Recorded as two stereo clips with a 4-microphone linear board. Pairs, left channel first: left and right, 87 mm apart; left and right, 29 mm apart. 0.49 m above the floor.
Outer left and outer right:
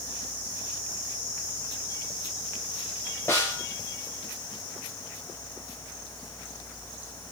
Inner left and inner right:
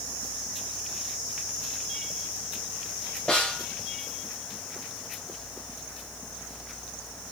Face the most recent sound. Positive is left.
turn(degrees=30)  # may be behind; listen again after turning